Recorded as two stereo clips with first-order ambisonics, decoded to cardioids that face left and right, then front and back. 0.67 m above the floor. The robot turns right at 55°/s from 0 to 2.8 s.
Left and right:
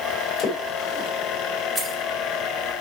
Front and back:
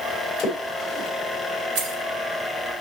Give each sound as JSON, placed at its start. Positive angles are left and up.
{"t": 0.4, "sound": "a splash", "azimuth_deg": 50, "distance_m": 3.0}
{"t": 1.8, "sound": "keys jangling", "azimuth_deg": -175, "distance_m": 3.0}